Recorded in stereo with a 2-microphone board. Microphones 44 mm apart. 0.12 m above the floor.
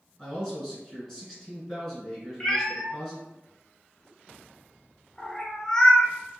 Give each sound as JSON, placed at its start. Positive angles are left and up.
{"t": 0.2, "sound": "a man speaking", "side_deg": 10, "distance_m": 1.9}
{"t": 2.4, "sound": "a cat meowing", "side_deg": 15, "distance_m": 0.6}